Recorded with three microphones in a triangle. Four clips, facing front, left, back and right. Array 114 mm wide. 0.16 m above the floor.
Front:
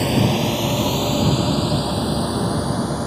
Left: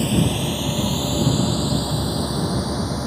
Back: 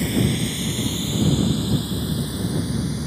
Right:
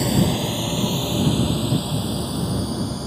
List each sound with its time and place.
0.0 s a drone: 10° right; by 3.1 s 20° left